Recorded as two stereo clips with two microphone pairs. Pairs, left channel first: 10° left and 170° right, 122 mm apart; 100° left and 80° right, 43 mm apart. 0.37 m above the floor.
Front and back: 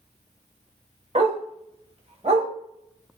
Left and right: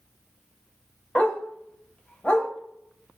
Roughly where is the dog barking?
Behind.